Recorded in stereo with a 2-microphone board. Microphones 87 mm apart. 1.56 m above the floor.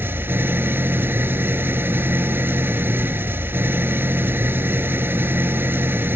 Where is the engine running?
25° right (ahead or behind).